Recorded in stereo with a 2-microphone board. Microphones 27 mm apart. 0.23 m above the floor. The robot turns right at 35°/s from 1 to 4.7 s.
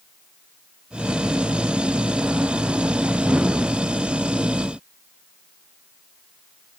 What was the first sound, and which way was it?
Only background noise.